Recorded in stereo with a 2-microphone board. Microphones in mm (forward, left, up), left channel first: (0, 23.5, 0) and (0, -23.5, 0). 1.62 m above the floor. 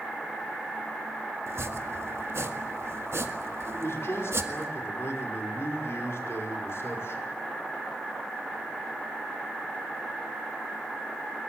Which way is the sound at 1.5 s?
65° right (ahead or behind).